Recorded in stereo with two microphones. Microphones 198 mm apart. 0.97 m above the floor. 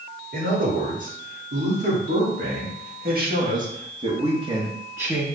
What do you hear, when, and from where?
0.3 s a man speaking: 75° right (ahead or behind), 2.5 m; by 5.2 s 5° right (ahead or behind), 1.2 m